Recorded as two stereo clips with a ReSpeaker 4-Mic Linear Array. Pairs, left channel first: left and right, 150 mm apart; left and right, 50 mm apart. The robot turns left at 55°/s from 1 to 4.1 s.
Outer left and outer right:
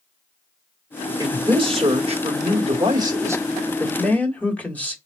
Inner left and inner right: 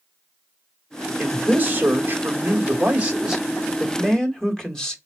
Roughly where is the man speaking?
Ahead right.